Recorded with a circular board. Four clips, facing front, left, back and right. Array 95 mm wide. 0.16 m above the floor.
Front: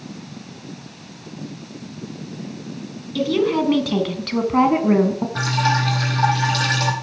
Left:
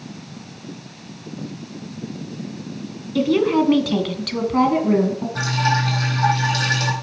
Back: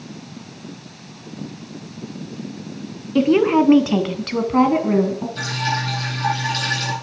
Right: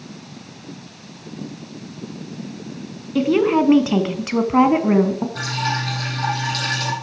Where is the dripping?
10° left, 5 m.